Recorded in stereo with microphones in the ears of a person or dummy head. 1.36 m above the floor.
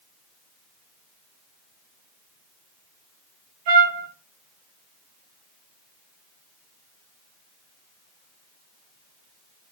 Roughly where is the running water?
I don't hear running water.